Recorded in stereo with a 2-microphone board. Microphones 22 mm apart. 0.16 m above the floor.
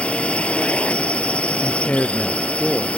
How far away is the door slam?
I don't hear a door slam.